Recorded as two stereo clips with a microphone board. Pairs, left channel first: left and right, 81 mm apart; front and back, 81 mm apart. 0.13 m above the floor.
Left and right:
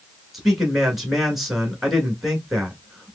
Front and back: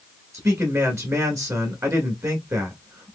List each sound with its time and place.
0.3 s a man speaking: straight behind, 1.6 m